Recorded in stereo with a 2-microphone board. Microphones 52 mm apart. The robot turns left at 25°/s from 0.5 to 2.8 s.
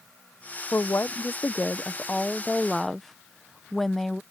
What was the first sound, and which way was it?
A woman speaking, 60° left.